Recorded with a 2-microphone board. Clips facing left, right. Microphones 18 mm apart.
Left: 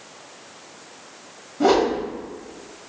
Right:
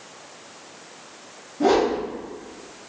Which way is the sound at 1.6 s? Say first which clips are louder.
Left 1 dB; 35° left (ahead or behind).